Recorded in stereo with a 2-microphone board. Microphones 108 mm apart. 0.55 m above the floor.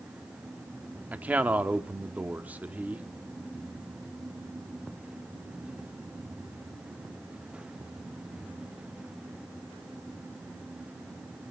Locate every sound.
1.1 s a man speaking: 15° right (ahead or behind), 1.1 m